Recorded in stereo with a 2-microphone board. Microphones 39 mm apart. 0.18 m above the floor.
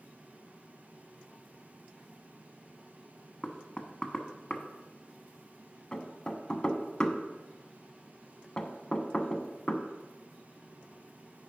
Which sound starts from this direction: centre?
Knocking, at 3.4 s.